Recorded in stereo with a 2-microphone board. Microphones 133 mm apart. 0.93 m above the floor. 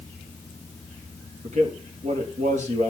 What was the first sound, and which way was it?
A man speaking, 60° right (ahead or behind).